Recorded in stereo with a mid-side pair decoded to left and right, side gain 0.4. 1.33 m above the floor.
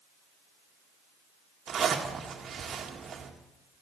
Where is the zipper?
60° right, 1.9 m.